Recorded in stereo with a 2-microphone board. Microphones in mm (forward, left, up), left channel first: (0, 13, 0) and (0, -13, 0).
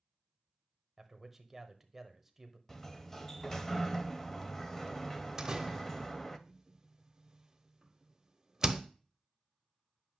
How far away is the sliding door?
About 0.5 m.